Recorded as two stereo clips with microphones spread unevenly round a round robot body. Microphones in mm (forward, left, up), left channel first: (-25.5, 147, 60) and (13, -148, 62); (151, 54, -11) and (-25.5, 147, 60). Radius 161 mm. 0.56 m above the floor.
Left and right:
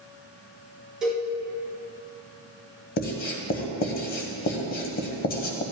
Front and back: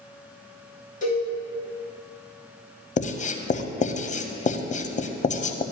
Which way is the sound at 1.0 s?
5° left.